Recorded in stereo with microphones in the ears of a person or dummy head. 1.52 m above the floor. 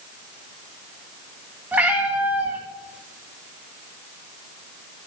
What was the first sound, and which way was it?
A cat meowing, 10° right (ahead or behind).